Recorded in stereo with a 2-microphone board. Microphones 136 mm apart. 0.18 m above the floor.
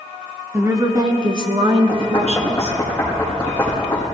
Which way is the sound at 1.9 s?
15° left (ahead or behind).